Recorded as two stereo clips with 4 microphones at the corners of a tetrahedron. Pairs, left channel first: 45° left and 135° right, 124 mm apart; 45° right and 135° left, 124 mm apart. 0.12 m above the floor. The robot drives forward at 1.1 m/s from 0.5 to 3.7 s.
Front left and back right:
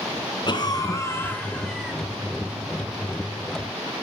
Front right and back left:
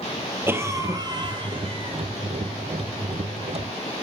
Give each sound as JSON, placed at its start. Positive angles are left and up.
{"t": 0.5, "sound": "a cough", "azimuth_deg": 75, "distance_m": 1.8}